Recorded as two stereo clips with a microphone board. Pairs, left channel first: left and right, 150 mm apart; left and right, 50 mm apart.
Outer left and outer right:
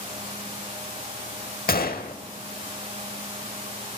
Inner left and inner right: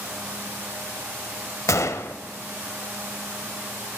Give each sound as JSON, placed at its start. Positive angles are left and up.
{"t": 1.7, "sound": "a gunshot", "side_deg": 80, "distance_m": 0.7}